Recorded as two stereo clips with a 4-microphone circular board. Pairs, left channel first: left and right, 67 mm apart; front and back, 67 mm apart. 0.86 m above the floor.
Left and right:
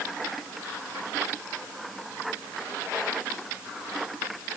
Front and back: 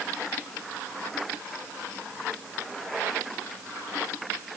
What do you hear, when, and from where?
Only background noise.